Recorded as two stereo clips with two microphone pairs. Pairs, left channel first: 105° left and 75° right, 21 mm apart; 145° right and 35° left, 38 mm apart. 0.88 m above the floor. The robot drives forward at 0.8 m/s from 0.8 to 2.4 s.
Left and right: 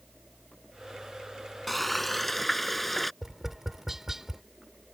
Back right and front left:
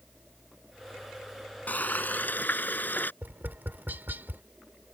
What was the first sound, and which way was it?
Frying, 175° right.